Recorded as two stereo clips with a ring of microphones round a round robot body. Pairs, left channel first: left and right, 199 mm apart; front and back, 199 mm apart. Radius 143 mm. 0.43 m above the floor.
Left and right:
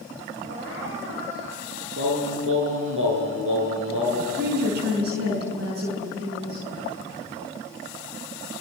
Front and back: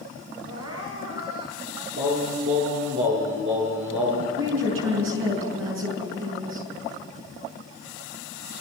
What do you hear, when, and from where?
0.5 s crying: 160° right, 6 m
2.0 s singing: 130° right, 4.5 m
4.4 s a woman speaking: 145° right, 6 m